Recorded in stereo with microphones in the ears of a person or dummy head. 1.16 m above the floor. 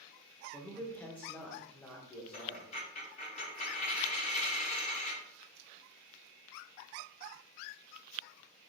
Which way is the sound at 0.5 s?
10° left (ahead or behind).